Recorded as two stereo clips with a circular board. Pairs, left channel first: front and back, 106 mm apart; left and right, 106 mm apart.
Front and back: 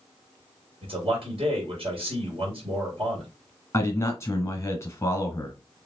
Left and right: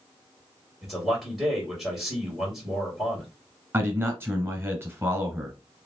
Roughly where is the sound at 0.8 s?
Behind.